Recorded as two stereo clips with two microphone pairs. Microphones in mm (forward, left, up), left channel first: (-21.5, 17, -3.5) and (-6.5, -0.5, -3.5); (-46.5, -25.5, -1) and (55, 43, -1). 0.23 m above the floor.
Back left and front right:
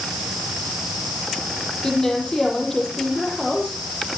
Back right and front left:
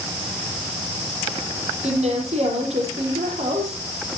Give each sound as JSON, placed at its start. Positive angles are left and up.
{"t": 1.8, "sound": "a woman speaking", "azimuth_deg": 60, "distance_m": 6.5}